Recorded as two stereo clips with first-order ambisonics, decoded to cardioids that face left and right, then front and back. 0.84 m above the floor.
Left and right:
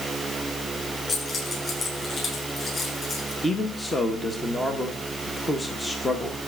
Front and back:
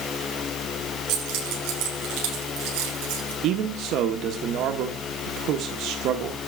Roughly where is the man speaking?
Behind.